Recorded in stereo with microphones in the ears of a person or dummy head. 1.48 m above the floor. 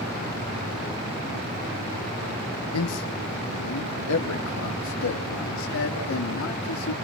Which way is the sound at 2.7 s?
80° left.